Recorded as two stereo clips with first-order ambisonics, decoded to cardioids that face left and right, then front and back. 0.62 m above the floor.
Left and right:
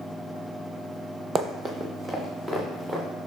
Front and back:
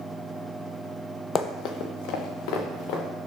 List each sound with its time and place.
1.4 s running footsteps: 35° right, 0.7 m; by 3.0 s 10° right, 2.5 m